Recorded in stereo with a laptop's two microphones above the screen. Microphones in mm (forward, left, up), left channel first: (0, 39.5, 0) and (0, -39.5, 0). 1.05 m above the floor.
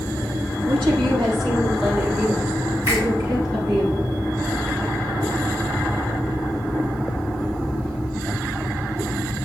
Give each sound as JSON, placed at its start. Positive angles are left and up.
{"t": 0.7, "sound": "a woman speaking", "side_deg": -80, "distance_m": 1.5}
{"t": 2.9, "sound": "a finger snap", "side_deg": -60, "distance_m": 3.0}